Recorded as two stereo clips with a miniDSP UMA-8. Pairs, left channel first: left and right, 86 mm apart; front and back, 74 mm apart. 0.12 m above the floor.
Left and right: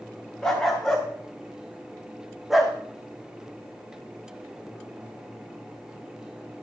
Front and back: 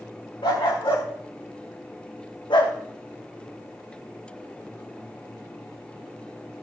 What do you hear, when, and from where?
0.4 s a dog barking: 5° left, 3.5 m; by 2.8 s 5° right, 1.8 m